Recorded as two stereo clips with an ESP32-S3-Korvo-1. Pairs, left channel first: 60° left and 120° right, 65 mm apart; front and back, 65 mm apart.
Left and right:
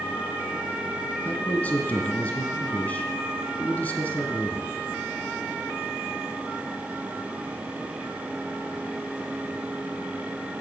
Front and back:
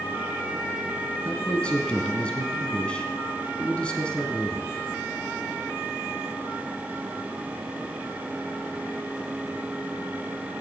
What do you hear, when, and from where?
1.2 s a man speaking: 45° left, 1.3 m